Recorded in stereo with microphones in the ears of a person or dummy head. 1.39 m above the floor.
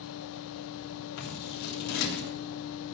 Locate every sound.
0.0 s a fan: 65° left (ahead or behind), 0.9 m
1.2 s scissors: 75° left (ahead or behind), 3.5 m